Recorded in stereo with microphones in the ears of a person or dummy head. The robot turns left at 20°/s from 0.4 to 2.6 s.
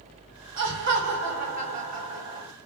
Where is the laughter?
115° right, 1.0 m; by 2.5 s 155° right, 1.0 m.